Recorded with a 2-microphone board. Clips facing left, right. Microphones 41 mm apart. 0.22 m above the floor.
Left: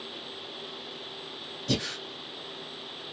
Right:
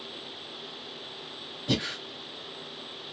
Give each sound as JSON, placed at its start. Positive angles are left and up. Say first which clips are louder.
{"t": 1.7, "sound": "breathing", "louder": "right 1 dB", "side_deg": -25, "distance_m": 1.2}